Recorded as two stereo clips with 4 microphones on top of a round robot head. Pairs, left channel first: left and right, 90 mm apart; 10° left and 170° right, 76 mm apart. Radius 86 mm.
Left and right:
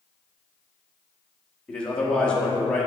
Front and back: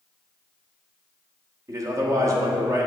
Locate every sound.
1.7 s a man speaking: 165° left, 1.3 m